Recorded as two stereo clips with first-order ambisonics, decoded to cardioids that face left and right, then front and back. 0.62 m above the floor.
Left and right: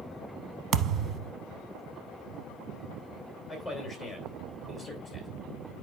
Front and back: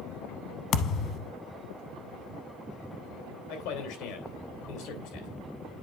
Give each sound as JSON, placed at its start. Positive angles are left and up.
{"t": 0.7, "sound": "a thud", "azimuth_deg": -40, "distance_m": 0.7}
{"t": 3.5, "sound": "a man speaking", "azimuth_deg": 0, "distance_m": 3.0}